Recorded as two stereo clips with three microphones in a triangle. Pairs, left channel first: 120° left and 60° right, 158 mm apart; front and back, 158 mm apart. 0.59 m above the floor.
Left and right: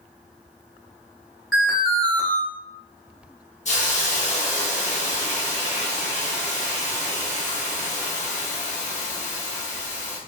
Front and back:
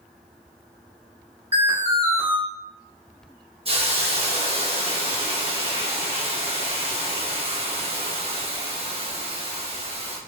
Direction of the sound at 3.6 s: 140° left.